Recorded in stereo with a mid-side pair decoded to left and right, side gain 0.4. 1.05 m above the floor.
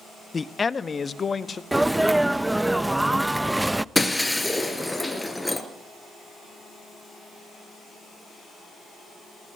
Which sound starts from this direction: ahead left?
A man speaking, at 0.3 s.